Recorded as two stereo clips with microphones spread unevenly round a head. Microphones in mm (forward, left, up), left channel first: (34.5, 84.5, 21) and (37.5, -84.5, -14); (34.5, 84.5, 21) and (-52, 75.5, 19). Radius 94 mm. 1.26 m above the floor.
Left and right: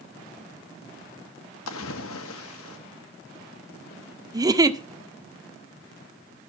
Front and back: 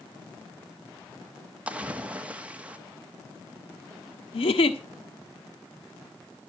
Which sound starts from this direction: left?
A splash, at 1.7 s.